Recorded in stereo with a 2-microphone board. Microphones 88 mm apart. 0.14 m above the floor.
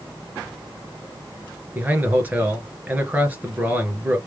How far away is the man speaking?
About 2 m.